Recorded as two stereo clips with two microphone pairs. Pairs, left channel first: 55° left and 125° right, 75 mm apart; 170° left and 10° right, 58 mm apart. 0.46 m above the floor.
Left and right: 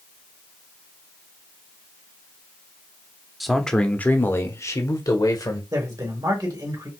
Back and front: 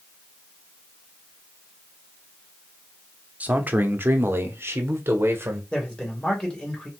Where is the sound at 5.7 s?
120° right, 2 m.